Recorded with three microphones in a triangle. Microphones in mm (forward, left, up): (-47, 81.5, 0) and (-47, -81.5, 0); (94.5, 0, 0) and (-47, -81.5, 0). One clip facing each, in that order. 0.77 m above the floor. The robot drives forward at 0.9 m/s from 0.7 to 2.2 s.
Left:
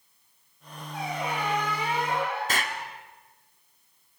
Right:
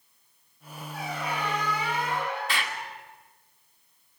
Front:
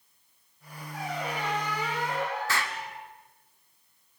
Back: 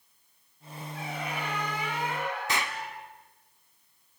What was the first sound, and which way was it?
A squeak, 20° left.